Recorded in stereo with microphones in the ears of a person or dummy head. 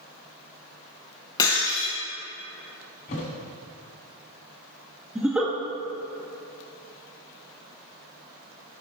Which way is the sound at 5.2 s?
5° right (ahead or behind).